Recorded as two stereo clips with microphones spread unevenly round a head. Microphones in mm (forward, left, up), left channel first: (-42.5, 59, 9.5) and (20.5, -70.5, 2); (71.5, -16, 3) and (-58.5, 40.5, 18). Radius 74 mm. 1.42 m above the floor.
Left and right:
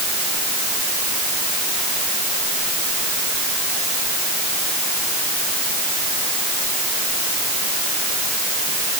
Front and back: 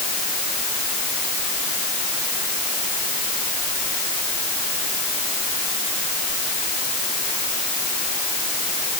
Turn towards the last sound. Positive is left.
No sound to turn to.